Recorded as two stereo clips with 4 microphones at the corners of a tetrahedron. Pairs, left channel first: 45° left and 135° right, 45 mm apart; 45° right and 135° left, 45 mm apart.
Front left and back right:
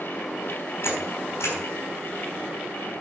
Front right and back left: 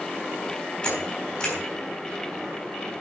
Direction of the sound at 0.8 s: 25° left.